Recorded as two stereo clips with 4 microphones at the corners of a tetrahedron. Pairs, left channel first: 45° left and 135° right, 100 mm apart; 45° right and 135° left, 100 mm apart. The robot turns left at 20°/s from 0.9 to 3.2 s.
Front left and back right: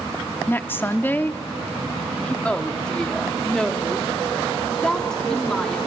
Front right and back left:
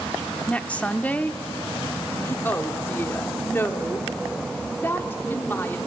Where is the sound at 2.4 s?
15° right, 1.3 m; by 5.8 s 30° right, 1.3 m.